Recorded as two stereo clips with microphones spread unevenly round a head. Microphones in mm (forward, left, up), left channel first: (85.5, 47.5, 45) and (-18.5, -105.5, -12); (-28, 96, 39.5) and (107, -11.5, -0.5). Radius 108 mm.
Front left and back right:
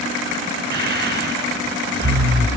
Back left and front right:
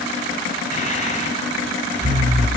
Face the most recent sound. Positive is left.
turn(degrees=-90)